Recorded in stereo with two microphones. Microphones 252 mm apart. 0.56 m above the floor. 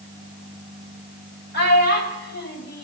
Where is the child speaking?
40° left (ahead or behind), 2 m.